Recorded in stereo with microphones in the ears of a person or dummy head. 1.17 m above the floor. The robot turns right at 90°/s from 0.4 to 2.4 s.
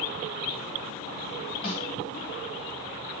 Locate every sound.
1.6 s a snare drum: 40° left (ahead or behind), 1.7 m; by 1.9 s 55° left (ahead or behind), 1.7 m